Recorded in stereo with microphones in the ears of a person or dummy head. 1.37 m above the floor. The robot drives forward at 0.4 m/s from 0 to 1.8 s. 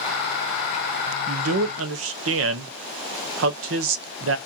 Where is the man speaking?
70° right (ahead or behind), 0.7 m; by 4.4 s 60° right (ahead or behind), 0.8 m.